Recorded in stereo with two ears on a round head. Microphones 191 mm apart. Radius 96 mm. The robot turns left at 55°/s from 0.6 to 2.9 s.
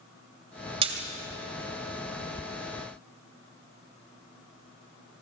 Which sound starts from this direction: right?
A splash, at 0.8 s.